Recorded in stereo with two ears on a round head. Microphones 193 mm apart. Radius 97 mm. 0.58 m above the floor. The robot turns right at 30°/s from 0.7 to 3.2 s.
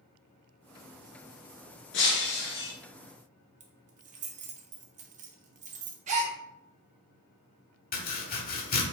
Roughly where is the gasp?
Right.